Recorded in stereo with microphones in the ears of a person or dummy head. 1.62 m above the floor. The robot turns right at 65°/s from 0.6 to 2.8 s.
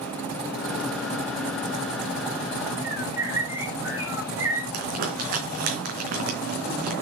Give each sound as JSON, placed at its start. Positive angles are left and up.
{"t": 2.8, "sound": "a bird", "side_deg": -15, "distance_m": 4.5}
{"t": 4.7, "sound": "crumpling", "side_deg": -55, "distance_m": 3.5}